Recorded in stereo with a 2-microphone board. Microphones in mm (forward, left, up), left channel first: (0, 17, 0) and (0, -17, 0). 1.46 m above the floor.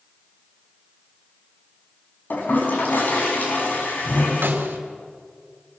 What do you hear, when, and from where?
2.3 s a toilet flushing: 65° left (ahead or behind), 5.5 m
4.4 s a snare drum: 85° right, 2.5 m